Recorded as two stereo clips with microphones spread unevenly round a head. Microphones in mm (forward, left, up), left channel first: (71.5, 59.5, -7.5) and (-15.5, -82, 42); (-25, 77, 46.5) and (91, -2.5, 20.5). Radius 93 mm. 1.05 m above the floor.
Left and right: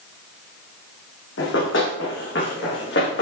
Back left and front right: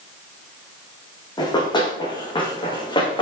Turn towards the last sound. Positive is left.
turn(degrees=90)